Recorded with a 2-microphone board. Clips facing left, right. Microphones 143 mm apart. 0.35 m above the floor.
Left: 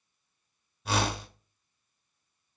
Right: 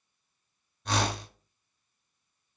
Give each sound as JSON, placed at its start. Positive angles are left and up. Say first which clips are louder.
{"t": 0.8, "sound": "a whoosh", "louder": "even", "side_deg": 5, "distance_m": 0.8}